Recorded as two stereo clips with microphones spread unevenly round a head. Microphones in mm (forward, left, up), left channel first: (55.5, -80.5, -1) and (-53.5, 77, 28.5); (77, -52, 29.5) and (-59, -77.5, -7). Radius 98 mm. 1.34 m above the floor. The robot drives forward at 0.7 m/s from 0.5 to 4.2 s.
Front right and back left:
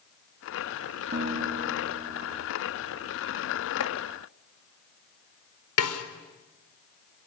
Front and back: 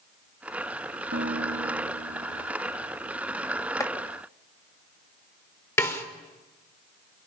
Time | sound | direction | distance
1.1 | a guitar | 165° left | 1.6 m
3.8 | chopping | 55° right | 3 m
5.8 | a snare drum | 60° right | 4 m